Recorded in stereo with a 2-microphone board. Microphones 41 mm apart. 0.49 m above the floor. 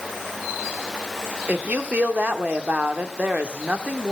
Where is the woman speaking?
40° right (ahead or behind), 0.8 m.